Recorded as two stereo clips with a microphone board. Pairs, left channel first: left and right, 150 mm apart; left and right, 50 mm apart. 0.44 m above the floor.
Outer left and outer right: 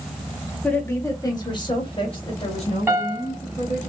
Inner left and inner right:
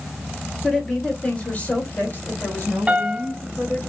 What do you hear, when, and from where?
0.6 s a woman speaking: 5° left (ahead or behind), 1.3 m; by 3.9 s 50° left (ahead or behind), 3 m
2.9 s a piano: 20° right (ahead or behind), 1.0 m